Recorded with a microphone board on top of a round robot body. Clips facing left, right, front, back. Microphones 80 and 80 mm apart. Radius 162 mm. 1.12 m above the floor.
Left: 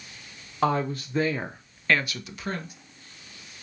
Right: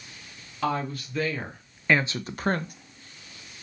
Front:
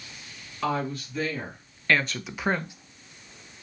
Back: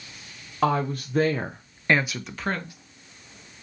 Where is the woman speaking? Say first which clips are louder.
Left 3 dB, back 5 dB; 140° left, 0.9 m; by 2.7 s 65° right, 0.7 m.